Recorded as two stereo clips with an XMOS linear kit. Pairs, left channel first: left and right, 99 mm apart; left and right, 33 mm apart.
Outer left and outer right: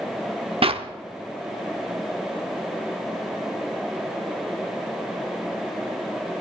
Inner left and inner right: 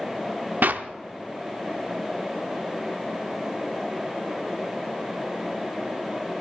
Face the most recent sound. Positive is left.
turn(degrees=-65)  # may be behind; listen again after turning